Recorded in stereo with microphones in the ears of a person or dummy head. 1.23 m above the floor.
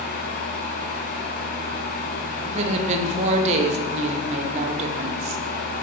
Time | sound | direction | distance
0.0 | a fan | 55° left (ahead or behind) | 1.3 m
2.5 | a woman speaking | 40° right (ahead or behind) | 0.8 m